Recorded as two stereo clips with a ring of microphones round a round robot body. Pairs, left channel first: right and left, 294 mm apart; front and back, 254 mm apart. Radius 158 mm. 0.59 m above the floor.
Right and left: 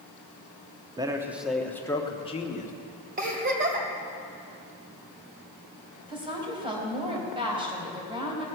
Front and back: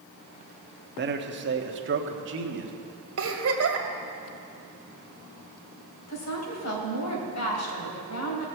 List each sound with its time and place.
1.0 s a man speaking: 160° left, 1.2 m; by 2.7 s 150° right, 1.5 m
3.2 s a giggle: 150° left, 1.8 m
6.1 s a woman speaking: 15° left, 3 m